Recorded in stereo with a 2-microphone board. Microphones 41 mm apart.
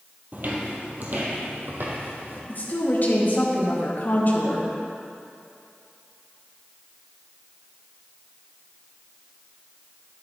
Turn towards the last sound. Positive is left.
turn(degrees=50)  # may be behind; listen again after turning